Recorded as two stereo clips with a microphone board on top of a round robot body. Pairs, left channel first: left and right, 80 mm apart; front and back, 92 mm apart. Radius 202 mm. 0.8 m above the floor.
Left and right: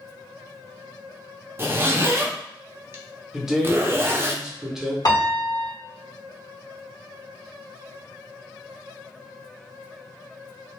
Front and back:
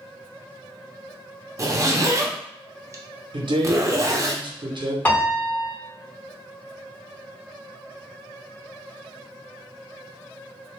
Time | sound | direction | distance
1.6 | a zipper | 135° right | 0.8 m
3.3 | a man speaking | 175° right | 0.9 m
5.0 | a piano | 70° left | 1.3 m